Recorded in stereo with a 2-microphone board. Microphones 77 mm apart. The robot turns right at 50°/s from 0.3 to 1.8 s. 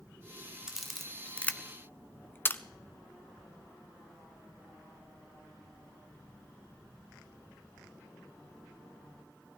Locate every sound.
0.7 s a camera shutter: 5° right (ahead or behind), 0.7 m; by 2.6 s 25° left (ahead or behind), 0.7 m